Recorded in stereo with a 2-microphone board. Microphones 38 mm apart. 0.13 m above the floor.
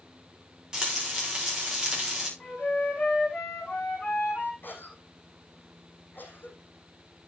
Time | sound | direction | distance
0.7 | frying | 15° right (ahead or behind) | 7.5 m
2.4 | a flute | 35° left (ahead or behind) | 7.5 m
4.6 | a cough | 60° left (ahead or behind) | 6 m